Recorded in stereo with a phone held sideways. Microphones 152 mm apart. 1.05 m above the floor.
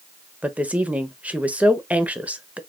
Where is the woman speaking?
10° right (ahead or behind), 0.9 m.